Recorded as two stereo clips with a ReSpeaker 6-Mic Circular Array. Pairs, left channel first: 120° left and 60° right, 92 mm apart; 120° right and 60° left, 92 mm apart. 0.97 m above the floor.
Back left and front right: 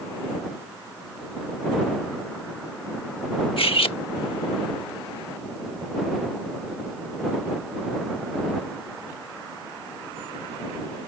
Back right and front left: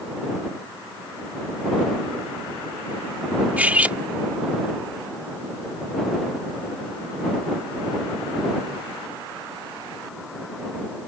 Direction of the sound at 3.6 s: 135° left.